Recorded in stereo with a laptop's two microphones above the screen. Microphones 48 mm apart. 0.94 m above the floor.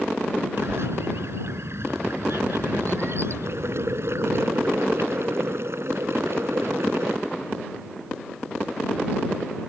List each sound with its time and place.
0.6 s a bird: 65° right (ahead or behind)
3.5 s boiling: 65° right (ahead or behind)